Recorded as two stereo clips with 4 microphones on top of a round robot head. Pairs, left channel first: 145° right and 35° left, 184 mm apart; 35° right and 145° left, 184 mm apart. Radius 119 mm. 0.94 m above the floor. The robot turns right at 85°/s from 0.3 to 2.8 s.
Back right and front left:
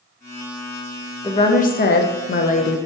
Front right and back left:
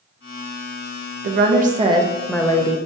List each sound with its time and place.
1.2 s a woman speaking: 150° left, 0.6 m; by 2.8 s 85° right, 0.6 m